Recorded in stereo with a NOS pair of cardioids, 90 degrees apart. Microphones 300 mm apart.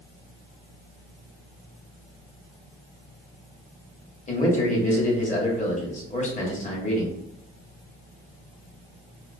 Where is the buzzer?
No buzzer in this recording.